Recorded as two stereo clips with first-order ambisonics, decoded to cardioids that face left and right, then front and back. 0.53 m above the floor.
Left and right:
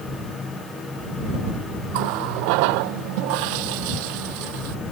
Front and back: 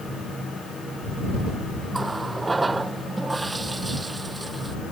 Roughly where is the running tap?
Right.